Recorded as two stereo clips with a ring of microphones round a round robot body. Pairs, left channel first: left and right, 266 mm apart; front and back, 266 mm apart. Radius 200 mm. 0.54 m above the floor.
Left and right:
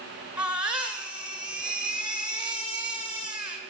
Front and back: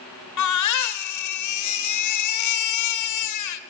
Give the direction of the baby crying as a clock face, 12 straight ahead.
12 o'clock.